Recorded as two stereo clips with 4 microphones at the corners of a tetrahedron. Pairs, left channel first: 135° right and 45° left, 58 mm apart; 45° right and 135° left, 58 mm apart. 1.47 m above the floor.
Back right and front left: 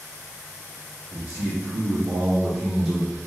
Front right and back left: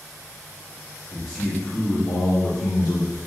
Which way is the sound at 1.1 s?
20° left.